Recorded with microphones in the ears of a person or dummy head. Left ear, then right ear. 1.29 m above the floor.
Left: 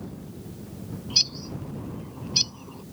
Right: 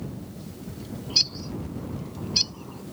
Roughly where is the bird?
Centre.